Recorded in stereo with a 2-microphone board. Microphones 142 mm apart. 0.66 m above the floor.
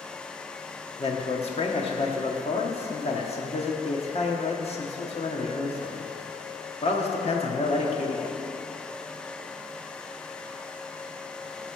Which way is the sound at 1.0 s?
45° left (ahead or behind).